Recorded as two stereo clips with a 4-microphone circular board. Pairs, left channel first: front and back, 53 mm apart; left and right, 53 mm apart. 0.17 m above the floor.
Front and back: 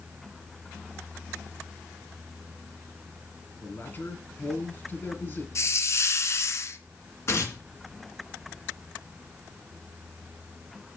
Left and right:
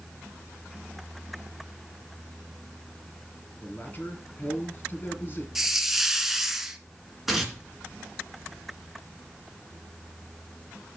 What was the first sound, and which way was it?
A man speaking, 45° left.